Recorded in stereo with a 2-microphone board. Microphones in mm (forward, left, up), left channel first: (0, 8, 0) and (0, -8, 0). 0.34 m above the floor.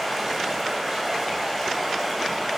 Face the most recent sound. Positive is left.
turn(degrees=5)  # may be behind; listen again after turning